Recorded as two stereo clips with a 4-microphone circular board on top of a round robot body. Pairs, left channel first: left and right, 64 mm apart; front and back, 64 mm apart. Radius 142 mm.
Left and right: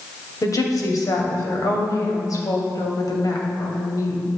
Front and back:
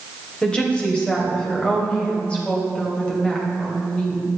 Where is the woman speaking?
70° left, 2.5 m.